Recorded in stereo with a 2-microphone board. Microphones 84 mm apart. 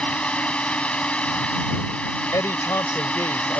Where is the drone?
15° left (ahead or behind).